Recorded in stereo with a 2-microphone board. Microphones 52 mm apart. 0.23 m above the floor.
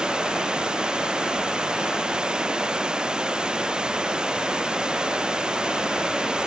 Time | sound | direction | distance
0.0 | running water | 15° right (ahead or behind) | ?